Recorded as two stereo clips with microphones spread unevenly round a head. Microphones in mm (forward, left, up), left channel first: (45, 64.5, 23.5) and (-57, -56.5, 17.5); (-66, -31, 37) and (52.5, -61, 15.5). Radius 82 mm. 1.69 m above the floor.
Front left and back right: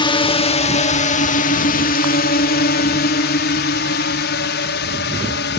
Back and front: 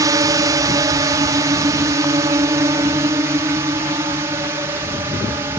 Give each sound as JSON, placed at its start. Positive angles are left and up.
{"t": 0.0, "sound": "a drone", "azimuth_deg": 5}